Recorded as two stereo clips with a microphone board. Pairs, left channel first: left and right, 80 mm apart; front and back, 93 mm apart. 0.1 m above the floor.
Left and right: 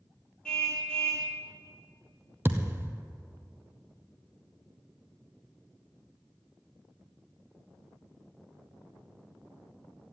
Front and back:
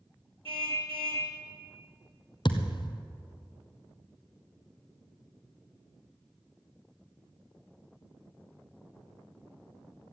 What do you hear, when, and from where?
0.5 s a car horn: 170° left, 2.5 m
2.5 s a thud: 30° right, 1.1 m